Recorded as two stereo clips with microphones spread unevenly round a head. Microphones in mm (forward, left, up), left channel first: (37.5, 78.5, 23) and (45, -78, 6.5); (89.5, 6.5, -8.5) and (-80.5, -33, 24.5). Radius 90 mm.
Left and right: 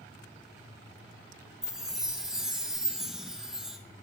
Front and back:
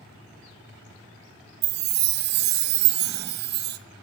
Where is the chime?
Straight behind, 0.6 m.